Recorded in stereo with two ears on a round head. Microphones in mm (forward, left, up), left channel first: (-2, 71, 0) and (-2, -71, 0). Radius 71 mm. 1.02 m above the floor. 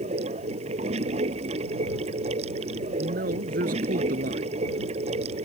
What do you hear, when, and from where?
0.0 s running water: 40° right (ahead or behind)
3.0 s a man speaking: 60° right (ahead or behind)